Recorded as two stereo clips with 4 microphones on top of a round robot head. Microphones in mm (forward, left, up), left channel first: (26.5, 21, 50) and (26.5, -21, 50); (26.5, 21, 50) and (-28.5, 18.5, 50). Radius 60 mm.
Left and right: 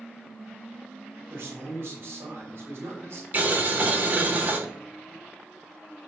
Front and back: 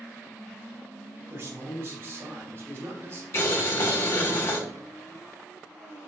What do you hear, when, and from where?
1.3 s a man speaking: 125° right, 6 m
3.3 s boiling: 45° right, 2.5 m